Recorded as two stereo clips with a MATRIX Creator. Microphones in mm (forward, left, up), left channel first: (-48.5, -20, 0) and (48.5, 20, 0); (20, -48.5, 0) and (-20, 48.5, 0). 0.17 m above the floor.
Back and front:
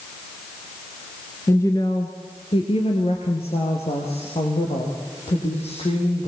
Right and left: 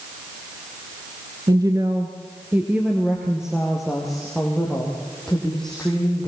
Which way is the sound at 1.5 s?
145° left.